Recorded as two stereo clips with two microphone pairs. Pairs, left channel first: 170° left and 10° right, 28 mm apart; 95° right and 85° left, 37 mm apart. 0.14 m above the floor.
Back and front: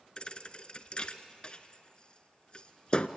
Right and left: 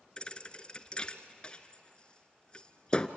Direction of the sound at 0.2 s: 150° right.